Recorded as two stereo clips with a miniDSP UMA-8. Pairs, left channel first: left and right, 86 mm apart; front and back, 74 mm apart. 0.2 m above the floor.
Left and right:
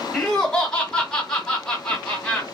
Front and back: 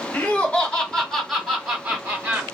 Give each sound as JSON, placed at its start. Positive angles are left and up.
{"t": 0.1, "sound": "laughter", "azimuth_deg": 15, "distance_m": 1.7}